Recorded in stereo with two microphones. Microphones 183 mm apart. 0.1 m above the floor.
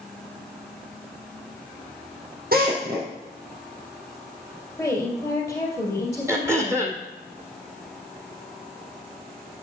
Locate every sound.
2.5 s a drill: 60° right (ahead or behind), 3 m
4.8 s a woman speaking: 5° left (ahead or behind), 2.5 m
6.3 s throat clearing: 15° right (ahead or behind), 1.6 m